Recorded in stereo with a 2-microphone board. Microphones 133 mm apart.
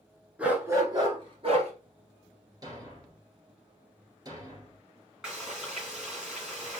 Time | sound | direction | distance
0.4 | a dog barking | 10° right (ahead or behind) | 1.6 m
2.6 | a thud | 30° right (ahead or behind) | 2 m
5.2 | frying | 5° right (ahead or behind) | 2.5 m